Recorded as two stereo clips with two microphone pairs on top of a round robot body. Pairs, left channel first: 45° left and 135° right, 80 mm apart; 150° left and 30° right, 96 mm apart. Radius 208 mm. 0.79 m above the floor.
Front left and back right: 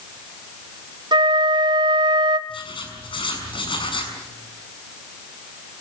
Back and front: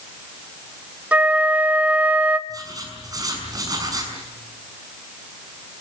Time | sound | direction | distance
1.1 | a flute | 105° right | 1.1 m
2.5 | writing | 25° left | 6.5 m